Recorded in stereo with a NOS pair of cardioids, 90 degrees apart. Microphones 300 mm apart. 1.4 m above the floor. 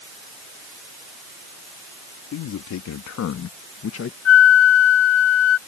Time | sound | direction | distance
2.3 | a man speaking | 70° left | ?
4.2 | a flute | 65° left | ?